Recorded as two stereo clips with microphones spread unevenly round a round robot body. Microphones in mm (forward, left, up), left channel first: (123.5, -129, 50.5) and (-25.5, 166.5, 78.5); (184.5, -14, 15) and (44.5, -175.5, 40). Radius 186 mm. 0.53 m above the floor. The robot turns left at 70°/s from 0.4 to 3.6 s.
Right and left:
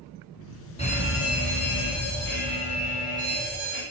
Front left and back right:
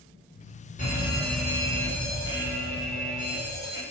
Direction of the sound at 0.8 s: 5° left.